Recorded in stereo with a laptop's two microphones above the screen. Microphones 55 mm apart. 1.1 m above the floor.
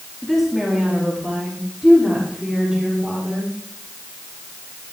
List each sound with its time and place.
0.2 s a woman speaking: 5° left (ahead or behind), 1.9 m; by 3.5 s 10° right (ahead or behind), 3.5 m